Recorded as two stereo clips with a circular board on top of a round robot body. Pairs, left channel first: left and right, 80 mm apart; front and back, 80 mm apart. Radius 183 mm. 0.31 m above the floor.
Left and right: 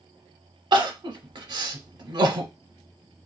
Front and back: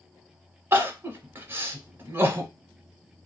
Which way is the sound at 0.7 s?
115° right.